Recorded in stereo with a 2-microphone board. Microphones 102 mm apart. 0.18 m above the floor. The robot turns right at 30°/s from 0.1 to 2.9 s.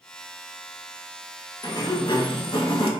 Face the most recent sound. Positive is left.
turn(degrees=90)